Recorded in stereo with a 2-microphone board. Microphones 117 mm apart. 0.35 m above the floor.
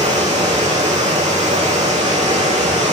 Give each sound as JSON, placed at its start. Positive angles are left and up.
{"t": 0.0, "sound": "running water", "side_deg": -85, "distance_m": 4.0}